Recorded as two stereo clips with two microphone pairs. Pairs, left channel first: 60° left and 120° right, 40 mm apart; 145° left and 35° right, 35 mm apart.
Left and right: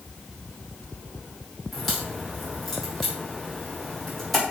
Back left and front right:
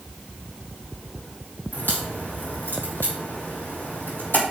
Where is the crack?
150° left, 4 m.